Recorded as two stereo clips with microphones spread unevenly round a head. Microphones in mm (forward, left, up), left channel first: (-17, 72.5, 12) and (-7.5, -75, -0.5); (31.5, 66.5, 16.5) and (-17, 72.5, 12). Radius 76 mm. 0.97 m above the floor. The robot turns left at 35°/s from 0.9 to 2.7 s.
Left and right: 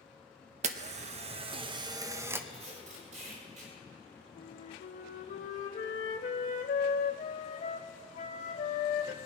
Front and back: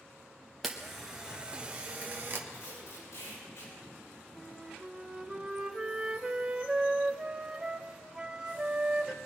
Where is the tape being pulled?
35° right, 4.5 m; by 3.7 s 45° right, 4.5 m.